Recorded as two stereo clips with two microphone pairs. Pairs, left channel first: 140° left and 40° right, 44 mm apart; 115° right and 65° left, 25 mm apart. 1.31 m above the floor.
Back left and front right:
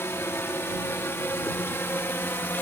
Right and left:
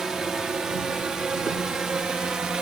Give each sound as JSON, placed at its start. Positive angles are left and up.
{"t": 0.0, "sound": "a drone", "azimuth_deg": 135}